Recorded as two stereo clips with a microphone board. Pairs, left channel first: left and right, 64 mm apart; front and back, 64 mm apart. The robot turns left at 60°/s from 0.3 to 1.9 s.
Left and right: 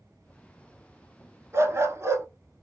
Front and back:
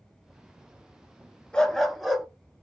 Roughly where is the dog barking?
Right.